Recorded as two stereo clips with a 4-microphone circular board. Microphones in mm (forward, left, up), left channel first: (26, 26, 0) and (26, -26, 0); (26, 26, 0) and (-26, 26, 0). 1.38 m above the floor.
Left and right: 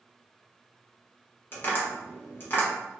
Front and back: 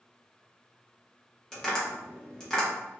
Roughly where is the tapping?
Left.